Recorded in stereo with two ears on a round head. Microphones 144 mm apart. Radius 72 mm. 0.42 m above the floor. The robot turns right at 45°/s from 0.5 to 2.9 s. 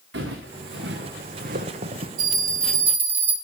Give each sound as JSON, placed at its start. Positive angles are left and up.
{"t": 0.1, "sound": "footsteps", "side_deg": -80, "distance_m": 2.5}
{"t": 2.2, "sound": "a bell", "azimuth_deg": -50, "distance_m": 1.5}